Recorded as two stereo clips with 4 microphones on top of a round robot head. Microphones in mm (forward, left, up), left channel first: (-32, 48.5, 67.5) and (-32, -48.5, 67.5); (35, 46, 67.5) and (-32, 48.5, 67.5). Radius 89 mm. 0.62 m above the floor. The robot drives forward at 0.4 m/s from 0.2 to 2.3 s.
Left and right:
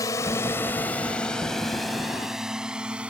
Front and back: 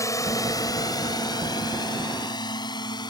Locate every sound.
0.0 s a drone: 35° left; by 3.1 s 10° right